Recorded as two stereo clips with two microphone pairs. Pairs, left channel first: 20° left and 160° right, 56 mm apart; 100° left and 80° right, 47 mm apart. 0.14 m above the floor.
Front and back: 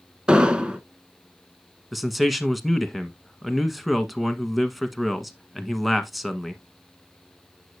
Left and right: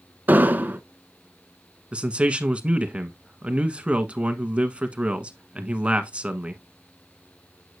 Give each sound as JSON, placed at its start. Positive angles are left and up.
{"t": 0.3, "sound": "an explosion", "azimuth_deg": -95, "distance_m": 0.9}
{"t": 1.9, "sound": "a man speaking", "azimuth_deg": -70, "distance_m": 1.2}